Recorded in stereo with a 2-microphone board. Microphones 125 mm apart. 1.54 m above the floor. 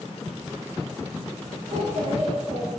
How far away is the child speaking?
About 9 m.